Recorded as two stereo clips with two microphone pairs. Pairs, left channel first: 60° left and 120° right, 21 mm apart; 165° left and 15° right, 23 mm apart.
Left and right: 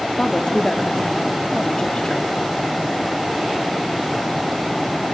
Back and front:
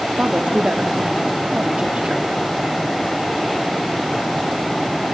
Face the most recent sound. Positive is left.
turn(degrees=10)